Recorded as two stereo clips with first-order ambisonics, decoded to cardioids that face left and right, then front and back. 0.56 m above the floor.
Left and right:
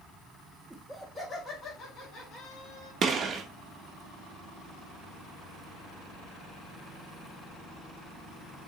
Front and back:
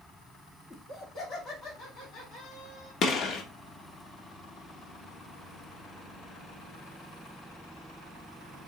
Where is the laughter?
15° right, 0.9 m; by 2.9 s 50° left, 1.8 m.